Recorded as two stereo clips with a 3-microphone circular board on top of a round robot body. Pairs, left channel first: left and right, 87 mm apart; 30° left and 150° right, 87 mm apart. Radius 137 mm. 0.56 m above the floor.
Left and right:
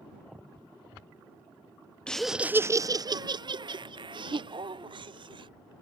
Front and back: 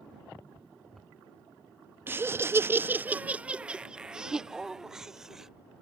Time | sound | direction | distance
2.1 | laughter | 160° left | ?